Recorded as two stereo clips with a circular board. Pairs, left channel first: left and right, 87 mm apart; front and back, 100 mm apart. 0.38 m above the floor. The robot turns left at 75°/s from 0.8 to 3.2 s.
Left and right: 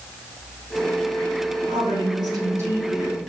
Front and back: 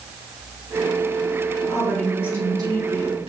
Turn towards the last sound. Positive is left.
turn(degrees=175)